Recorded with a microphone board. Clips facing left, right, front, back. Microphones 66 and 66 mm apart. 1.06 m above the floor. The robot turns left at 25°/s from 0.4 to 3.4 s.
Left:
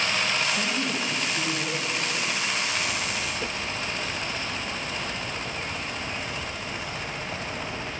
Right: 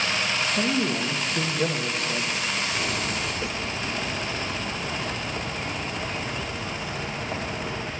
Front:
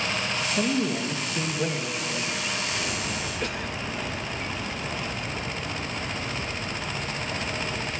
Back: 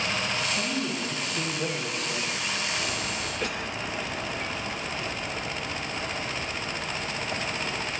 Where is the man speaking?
50° right, 0.9 m; by 2.6 s 100° right, 0.9 m.